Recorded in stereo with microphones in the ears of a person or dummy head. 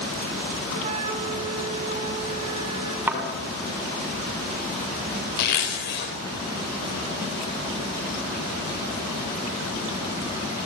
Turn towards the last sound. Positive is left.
turn(degrees=60)  # may be behind; listen again after turning